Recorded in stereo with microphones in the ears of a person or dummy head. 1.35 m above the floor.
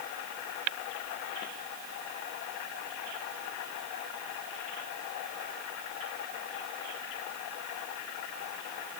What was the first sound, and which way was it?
Only background noise.